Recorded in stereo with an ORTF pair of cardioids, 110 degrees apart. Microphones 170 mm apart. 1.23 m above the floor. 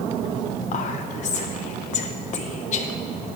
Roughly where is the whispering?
Ahead left.